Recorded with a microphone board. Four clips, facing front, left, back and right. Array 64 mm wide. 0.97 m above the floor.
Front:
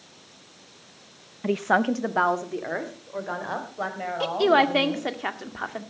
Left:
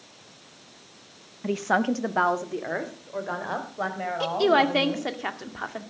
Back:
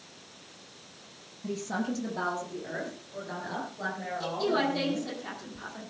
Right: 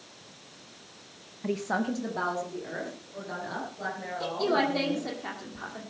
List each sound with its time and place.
1.4 s a woman speaking: 5° left, 0.6 m; by 5.1 s 50° left, 6 m
4.2 s a woman speaking: 30° left, 1.9 m